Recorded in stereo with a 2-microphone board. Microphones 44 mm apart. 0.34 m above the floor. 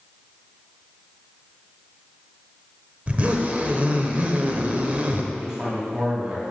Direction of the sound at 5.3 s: 15° right (ahead or behind).